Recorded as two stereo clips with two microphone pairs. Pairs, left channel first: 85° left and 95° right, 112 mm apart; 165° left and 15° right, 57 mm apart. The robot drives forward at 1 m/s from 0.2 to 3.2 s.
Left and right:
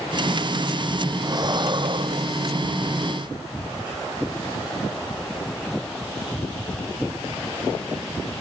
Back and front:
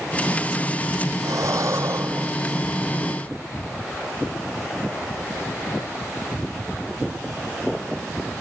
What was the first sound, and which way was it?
Breathing, 40° right.